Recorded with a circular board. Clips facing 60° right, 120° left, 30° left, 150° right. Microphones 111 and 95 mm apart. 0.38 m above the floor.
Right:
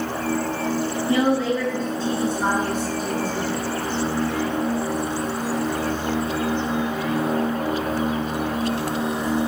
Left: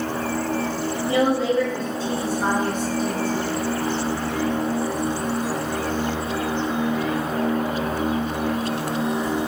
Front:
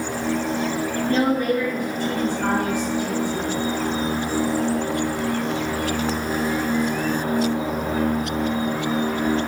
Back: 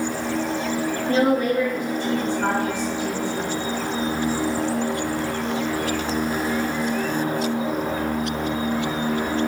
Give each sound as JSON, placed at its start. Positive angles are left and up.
{"t": 1.1, "sound": "a woman speaking", "azimuth_deg": 155, "distance_m": 1.6}